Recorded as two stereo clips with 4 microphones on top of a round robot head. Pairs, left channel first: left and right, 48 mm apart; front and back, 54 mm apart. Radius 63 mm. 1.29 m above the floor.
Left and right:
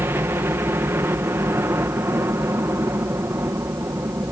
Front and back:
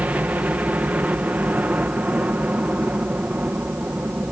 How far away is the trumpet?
I don't hear a trumpet.